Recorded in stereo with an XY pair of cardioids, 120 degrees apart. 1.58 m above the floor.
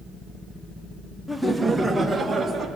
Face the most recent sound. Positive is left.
turn(degrees=-15)